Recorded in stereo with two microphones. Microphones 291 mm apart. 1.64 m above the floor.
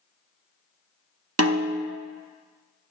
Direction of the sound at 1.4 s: 60° right (ahead or behind).